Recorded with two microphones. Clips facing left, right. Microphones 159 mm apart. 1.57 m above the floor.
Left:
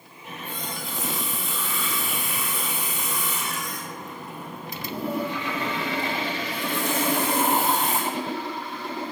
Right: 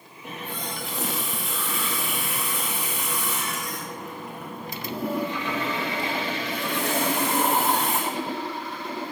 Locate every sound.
0.2 s a running tap: 75° right (ahead or behind), 3 m